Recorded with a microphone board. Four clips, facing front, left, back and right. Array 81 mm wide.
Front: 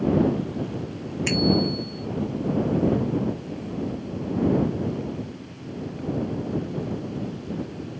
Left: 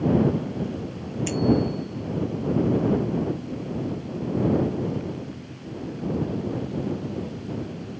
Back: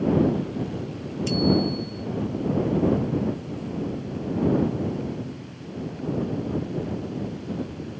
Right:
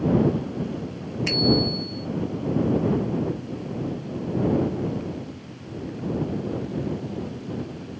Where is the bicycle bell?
25° right.